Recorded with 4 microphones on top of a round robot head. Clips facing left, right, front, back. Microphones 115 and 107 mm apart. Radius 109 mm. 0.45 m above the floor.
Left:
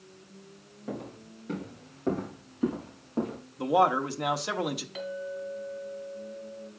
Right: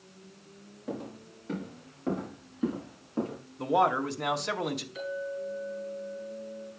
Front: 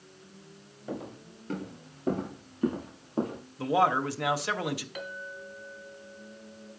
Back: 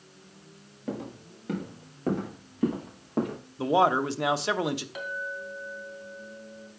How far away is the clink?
About 3 m.